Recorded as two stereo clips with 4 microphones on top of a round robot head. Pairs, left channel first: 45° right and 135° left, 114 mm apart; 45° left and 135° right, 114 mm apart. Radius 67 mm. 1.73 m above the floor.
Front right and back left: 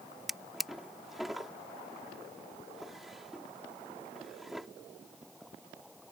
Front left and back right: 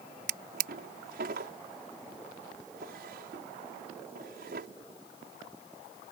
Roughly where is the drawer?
Behind right.